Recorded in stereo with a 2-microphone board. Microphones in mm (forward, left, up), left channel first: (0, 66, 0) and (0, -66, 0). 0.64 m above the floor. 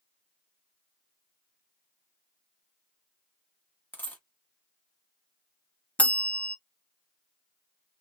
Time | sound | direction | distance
3.9 | a dropped coin | 15° left (ahead or behind) | 1.0 m
6.0 | a bell | 10° left (ahead or behind) | 0.5 m